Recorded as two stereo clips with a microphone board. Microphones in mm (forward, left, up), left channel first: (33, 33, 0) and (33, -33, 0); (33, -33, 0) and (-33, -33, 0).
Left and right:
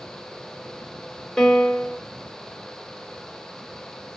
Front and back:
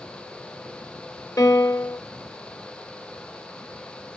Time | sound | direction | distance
1.4 | a piano | 15° left | 1.2 m